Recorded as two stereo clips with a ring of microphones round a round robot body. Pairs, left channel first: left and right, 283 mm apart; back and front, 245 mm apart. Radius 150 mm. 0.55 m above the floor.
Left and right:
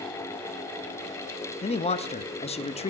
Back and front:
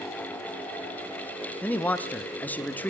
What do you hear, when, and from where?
1.6 s a man speaking: 110° left, 0.6 m